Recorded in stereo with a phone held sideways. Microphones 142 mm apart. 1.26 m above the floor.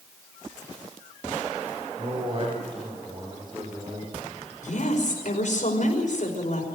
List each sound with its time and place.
2.0 s a man speaking: 40° right (ahead or behind), 4.5 m; by 4.5 s 25° right (ahead or behind), 6 m
4.6 s a woman speaking: 65° left (ahead or behind), 5.5 m